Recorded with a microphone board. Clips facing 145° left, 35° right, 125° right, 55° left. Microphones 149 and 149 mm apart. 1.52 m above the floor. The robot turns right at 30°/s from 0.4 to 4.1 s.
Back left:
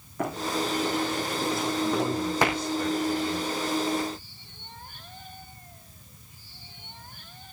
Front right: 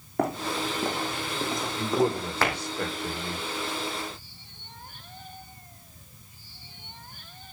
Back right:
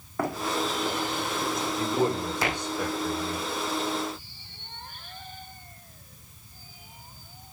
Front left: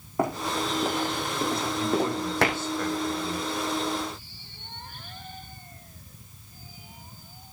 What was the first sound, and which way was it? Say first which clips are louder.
Running footsteps: front right 1 dB, front left 1 dB; 10° right.